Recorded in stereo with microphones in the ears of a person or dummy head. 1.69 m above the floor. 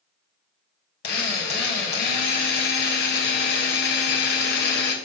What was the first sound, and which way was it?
A drill, 50° left (ahead or behind).